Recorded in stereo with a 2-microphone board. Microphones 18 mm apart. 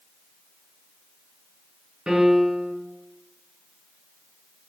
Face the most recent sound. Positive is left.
turn(degrees=-85)